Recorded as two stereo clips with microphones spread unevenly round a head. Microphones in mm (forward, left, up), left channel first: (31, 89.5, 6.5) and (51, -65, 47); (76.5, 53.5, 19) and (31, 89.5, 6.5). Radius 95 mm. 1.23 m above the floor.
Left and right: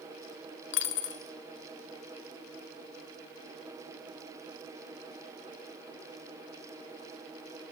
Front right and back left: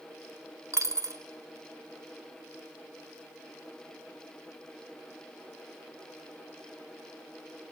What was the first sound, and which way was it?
A dropped coin, 105° left.